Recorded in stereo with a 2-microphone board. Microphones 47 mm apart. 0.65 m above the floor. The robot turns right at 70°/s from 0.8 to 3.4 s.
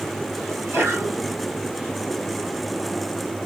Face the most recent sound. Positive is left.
turn(degrees=115)